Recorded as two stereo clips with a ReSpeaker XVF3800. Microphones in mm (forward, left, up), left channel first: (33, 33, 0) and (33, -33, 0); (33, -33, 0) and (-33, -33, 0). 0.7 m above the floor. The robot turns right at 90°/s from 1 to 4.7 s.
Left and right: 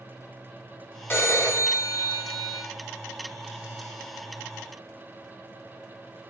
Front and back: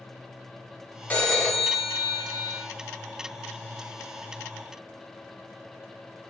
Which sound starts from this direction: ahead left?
A phone ringing, at 1.1 s.